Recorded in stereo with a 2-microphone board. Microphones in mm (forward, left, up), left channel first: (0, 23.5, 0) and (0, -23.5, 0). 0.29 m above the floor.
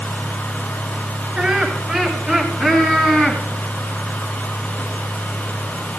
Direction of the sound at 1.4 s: 5° right (ahead or behind).